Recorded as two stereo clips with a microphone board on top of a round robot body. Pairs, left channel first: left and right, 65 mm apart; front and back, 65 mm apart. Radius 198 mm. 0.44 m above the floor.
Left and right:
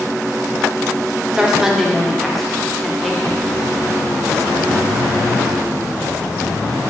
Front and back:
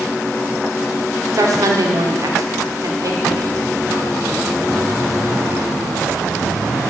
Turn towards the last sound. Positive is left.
turn(degrees=165)